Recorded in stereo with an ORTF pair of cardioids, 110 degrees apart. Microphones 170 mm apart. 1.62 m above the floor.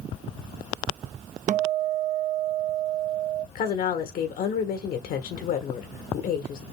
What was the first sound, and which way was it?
A guitar, 50° right.